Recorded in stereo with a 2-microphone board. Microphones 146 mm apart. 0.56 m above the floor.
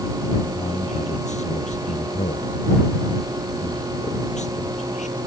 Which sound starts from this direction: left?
A man speaking, at 0.6 s.